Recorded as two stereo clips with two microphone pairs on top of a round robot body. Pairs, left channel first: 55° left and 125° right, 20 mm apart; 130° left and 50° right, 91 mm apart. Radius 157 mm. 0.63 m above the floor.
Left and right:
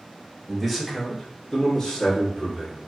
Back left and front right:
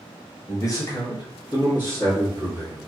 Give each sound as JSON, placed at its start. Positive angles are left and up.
{"t": 0.5, "sound": "a man speaking", "azimuth_deg": 175, "distance_m": 1.2}